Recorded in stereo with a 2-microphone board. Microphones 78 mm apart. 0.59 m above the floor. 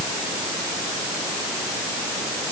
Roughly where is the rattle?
No rattle in this recording.